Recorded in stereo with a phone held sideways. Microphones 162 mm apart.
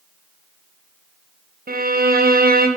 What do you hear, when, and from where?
1.7 s a violin: 65° right (ahead or behind), 0.6 m